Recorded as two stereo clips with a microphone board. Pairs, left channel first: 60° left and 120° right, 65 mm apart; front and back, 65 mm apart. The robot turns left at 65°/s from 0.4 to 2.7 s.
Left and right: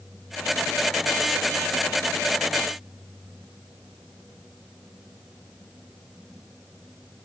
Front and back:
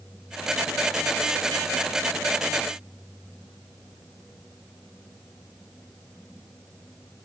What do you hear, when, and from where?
Only background noise.